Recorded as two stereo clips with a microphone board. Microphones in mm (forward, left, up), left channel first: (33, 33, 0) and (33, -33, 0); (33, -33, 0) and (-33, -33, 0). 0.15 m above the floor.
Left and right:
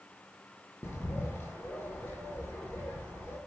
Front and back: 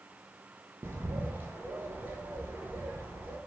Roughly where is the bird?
Behind left.